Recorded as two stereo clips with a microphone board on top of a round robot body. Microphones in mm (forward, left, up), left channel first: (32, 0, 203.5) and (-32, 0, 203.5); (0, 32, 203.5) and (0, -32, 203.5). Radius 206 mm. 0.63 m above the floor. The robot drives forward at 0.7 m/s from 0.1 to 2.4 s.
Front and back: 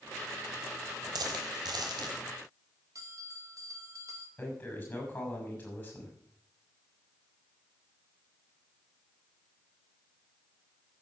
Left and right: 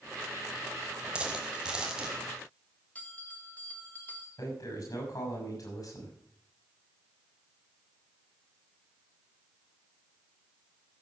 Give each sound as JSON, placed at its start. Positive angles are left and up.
{"t": 1.1, "sound": "a dropped coin", "azimuth_deg": -165, "distance_m": 1.1}
{"t": 3.0, "sound": "a bell", "azimuth_deg": 155, "distance_m": 2.5}
{"t": 4.4, "sound": "a man speaking", "azimuth_deg": 65, "distance_m": 6.0}